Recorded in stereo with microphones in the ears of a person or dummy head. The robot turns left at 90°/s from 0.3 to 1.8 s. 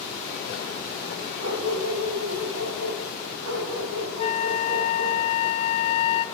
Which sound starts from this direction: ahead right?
A dog barking, at 1.4 s.